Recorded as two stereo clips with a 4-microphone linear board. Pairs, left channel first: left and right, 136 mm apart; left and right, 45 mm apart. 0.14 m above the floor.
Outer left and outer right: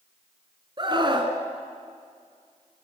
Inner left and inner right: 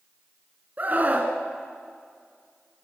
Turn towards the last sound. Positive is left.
turn(degrees=-35)  # may be behind; listen again after turning